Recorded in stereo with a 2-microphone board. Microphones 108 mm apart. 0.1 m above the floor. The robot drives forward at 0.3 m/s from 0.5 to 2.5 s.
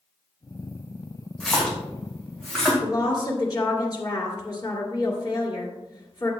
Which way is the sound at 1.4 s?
5° left (ahead or behind).